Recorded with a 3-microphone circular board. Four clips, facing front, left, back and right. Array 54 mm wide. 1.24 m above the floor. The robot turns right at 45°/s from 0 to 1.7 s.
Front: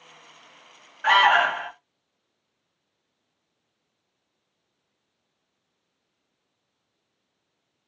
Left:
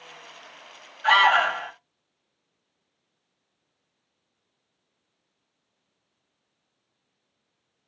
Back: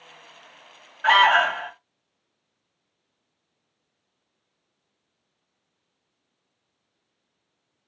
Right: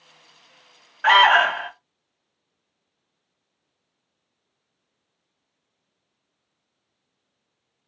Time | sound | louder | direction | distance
1.0 | an alarm | right 4 dB, back 1 dB | 95° right | 1.1 m